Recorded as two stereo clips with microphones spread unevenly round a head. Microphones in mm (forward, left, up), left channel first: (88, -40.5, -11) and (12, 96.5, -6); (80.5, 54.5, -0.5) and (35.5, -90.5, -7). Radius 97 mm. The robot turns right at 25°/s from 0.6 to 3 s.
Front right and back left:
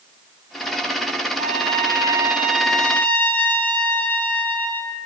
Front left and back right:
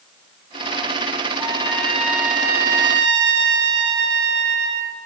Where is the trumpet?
175° left, 4 m; by 5.0 s 145° right, 4 m.